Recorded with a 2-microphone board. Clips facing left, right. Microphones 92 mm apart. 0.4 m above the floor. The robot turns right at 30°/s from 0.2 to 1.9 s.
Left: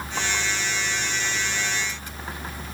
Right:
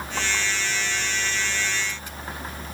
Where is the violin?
No violin in this recording.